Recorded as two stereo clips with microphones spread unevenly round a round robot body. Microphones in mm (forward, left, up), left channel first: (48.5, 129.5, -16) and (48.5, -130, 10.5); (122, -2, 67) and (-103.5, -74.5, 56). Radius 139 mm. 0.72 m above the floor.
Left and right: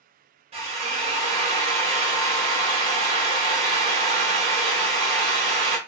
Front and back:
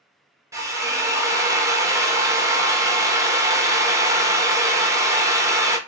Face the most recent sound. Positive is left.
turn(degrees=-120)